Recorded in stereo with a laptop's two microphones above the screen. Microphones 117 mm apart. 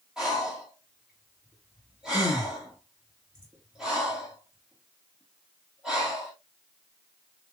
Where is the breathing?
5° right (ahead or behind), 1.6 m.